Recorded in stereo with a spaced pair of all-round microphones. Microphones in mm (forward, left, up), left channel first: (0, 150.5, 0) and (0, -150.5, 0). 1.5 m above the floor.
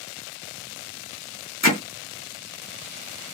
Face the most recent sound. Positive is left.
turn(degrees=60)  # may be behind; listen again after turning